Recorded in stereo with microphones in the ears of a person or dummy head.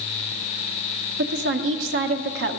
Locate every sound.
1.2 s a woman speaking: 70° right (ahead or behind), 0.7 m